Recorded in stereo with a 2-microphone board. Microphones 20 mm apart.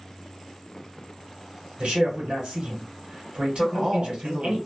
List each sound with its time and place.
1.8 s a man speaking: 55° right (ahead or behind), 1.7 m
3.6 s a man speaking: 60° right (ahead or behind), 1.8 m